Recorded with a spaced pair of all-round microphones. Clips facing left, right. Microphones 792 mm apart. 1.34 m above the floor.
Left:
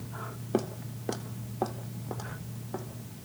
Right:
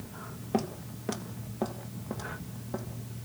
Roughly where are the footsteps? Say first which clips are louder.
Left 1 dB; right.